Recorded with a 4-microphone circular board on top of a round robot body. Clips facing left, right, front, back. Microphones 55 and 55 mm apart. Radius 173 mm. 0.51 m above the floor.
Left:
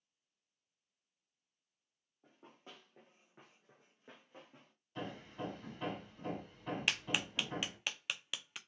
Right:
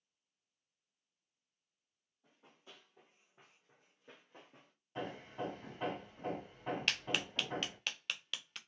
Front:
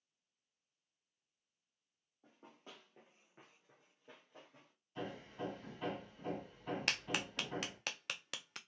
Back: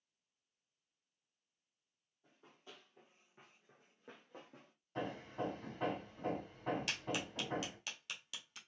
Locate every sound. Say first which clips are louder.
2.2 s running footsteps: left 4 dB, front 2 dB; 40° left, 1.3 m; by 4.7 s 170° right, 0.9 m
5.0 s hammering: right 2 dB, back 3 dB; 150° right, 1.6 m
6.9 s a clap: left 2 dB, front 2 dB; 15° left, 0.6 m